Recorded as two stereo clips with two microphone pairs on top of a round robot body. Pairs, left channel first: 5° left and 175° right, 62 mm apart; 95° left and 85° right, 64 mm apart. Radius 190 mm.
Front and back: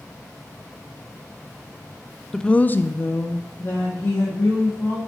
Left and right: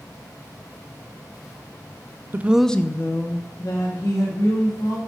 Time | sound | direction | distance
2.3 | a woman speaking | 85° right | 0.5 m